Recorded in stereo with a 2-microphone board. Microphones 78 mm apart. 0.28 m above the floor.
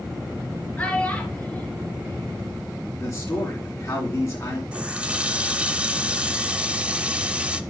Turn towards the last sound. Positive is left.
turn(degrees=-20)  # may be behind; listen again after turning